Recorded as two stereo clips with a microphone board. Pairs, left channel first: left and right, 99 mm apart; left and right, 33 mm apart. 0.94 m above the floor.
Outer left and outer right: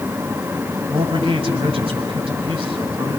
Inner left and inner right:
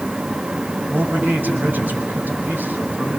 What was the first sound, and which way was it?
A man speaking, 85° right.